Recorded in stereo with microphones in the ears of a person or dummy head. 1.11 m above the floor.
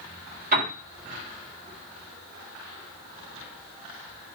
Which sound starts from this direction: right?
A piano, at 0.5 s.